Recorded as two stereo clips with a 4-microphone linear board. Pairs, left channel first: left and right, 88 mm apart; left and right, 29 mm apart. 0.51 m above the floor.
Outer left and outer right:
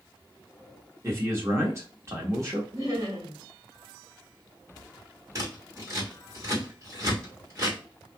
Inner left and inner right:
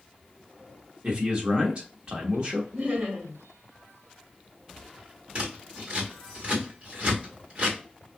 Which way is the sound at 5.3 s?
35° right (ahead or behind).